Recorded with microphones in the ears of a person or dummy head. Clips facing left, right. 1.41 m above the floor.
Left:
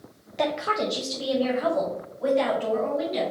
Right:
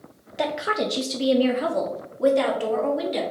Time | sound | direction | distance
0.4 | a woman speaking | 5° right (ahead or behind) | 0.7 m